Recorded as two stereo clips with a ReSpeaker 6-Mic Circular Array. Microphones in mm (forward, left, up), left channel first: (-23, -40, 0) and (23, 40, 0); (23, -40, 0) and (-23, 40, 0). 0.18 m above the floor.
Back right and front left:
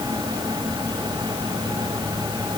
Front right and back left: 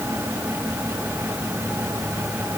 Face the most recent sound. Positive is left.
No sound to turn to.